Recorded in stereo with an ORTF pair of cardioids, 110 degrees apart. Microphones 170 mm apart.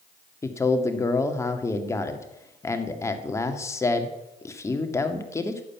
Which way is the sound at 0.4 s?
15° left.